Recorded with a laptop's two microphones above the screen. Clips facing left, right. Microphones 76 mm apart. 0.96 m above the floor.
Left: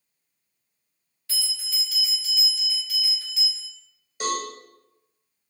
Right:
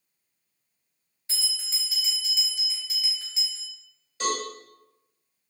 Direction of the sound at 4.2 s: 15° left (ahead or behind).